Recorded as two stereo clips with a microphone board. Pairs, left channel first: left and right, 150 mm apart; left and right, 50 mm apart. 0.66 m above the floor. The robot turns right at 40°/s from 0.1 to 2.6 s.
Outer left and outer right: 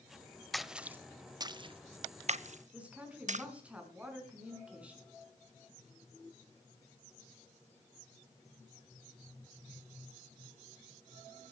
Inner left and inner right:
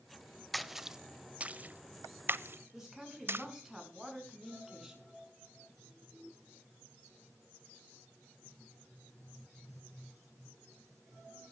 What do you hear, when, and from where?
0.5 s a splash: centre (ahead or behind), 0.6 m; by 3.5 s 60° right (ahead or behind), 0.6 m
2.7 s a woman speaking: 10° right (ahead or behind), 6 m